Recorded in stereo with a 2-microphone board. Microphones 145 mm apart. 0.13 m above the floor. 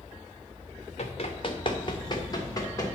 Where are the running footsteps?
50° left (ahead or behind), 1.2 m; by 2.9 s 25° left (ahead or behind), 2 m.